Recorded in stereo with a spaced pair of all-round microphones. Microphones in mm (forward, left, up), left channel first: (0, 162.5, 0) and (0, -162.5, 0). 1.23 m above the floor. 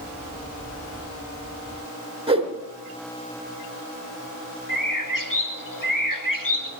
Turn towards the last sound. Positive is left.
turn(degrees=80)